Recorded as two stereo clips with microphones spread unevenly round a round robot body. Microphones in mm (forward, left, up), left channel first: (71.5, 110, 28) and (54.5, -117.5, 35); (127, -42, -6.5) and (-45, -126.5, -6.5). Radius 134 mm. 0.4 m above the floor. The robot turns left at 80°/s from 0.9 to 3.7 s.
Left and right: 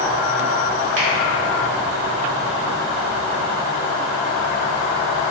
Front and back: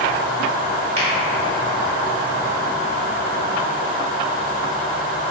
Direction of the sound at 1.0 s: 105° right.